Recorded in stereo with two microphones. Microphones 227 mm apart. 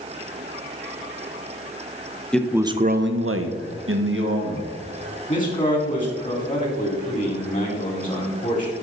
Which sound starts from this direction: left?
A man speaking, at 5.3 s.